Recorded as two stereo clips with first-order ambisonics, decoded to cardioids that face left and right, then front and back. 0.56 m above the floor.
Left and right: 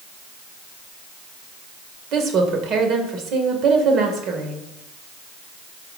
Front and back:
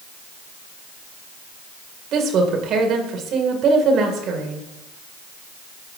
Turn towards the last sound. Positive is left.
turn(degrees=-135)